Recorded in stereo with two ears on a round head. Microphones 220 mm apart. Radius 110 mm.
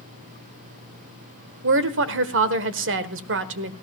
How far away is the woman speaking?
About 1.3 m.